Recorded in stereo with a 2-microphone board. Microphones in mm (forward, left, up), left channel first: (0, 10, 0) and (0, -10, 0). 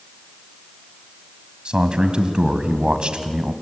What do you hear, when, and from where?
1.6 s a man speaking: 55° right (ahead or behind), 1.8 m